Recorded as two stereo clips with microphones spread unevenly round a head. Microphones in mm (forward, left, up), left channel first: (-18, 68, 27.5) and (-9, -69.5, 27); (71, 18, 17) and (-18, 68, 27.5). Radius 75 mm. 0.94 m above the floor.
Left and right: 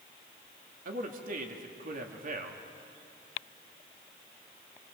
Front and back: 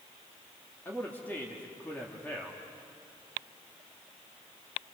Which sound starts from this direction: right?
A man speaking, at 0.8 s.